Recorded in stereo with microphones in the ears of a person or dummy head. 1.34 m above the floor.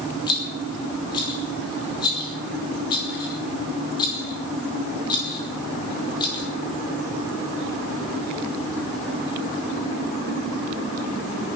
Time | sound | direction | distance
0.3 | a rattle | 25° left (ahead or behind) | 3 m